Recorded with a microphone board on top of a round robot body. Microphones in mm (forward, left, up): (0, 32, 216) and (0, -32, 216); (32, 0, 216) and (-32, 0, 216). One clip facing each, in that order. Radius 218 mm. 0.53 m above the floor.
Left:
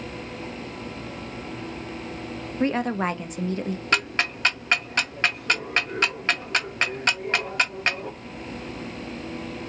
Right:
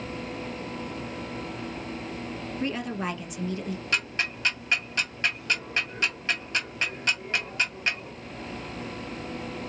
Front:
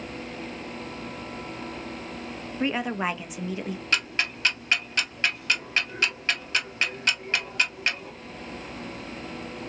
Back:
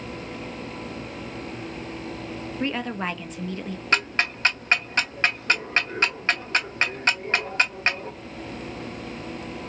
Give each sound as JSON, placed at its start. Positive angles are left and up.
{"t": 2.6, "sound": "a woman speaking", "azimuth_deg": 75, "distance_m": 0.9}
{"t": 3.9, "sound": "ticking", "azimuth_deg": 125, "distance_m": 0.5}